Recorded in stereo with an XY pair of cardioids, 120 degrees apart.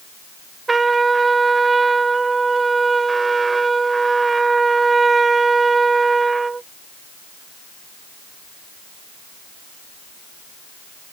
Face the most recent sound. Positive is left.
turn(degrees=-20)